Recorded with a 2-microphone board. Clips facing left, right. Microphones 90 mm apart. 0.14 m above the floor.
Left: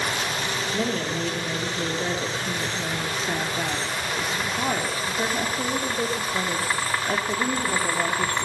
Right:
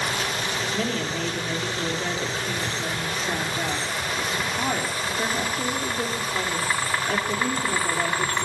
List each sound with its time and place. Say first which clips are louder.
0.7 s a woman speaking: left 2 dB; 30° left (ahead or behind), 3.5 m